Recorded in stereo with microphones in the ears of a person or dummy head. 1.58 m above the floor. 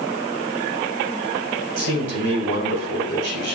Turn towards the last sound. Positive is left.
turn(degrees=-85)